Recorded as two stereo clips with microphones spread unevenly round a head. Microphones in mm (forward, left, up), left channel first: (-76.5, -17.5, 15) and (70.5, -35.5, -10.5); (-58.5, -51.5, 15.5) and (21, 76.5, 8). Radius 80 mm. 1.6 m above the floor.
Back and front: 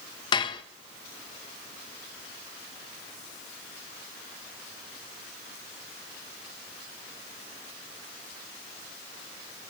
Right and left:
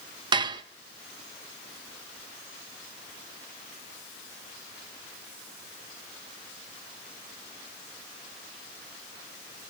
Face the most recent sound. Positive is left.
turn(degrees=120)